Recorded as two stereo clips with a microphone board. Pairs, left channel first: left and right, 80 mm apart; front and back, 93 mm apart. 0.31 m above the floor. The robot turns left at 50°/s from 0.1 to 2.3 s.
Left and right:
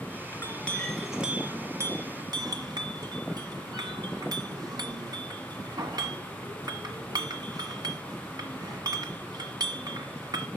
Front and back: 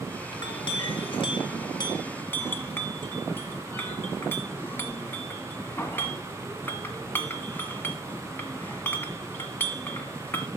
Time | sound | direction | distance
0.3 | a clink | 35° left | 1.5 m